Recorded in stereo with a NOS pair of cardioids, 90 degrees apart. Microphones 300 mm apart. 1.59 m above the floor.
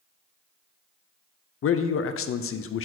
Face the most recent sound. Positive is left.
turn(degrees=45)